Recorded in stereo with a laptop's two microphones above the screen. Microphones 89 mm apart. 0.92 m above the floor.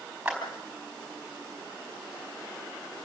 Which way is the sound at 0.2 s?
15° right (ahead or behind).